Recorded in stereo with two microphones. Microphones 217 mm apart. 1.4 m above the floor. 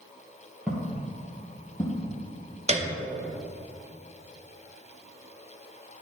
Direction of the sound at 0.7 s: 5° right (ahead or behind).